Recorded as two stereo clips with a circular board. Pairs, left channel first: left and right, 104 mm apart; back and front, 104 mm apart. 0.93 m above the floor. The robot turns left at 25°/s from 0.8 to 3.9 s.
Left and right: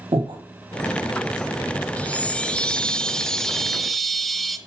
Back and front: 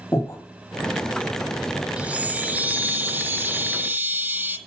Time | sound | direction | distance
0.1 | breathing | 120° right | 1.7 m
2.0 | a chime | 50° left | 0.6 m